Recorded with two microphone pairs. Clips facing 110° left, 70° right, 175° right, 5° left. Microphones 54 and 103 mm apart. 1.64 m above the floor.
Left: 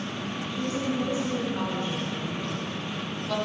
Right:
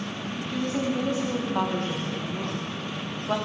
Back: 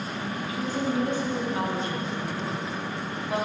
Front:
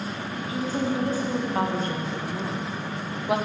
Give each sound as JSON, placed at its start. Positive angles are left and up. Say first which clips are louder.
{"t": 0.5, "sound": "a woman speaking", "louder": "right 3 dB, front 2 dB", "azimuth_deg": -50, "distance_m": 2.5}